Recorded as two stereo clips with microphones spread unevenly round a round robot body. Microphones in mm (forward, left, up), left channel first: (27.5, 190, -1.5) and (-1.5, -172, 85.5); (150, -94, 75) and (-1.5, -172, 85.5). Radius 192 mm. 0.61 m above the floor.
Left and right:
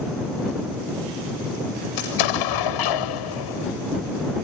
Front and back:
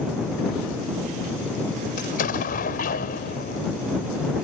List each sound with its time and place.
2.0 s an explosion: 75° left